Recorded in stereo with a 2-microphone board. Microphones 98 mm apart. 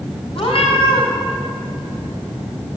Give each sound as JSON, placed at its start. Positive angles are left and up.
{"t": 0.3, "sound": "a cat meowing", "side_deg": 60, "distance_m": 6.0}